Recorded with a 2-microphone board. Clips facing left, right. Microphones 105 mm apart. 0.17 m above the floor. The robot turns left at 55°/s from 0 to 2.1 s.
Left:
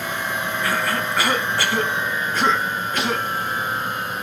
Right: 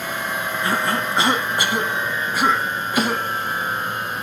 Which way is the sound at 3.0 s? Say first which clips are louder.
Right 4 dB; 45° right (ahead or behind).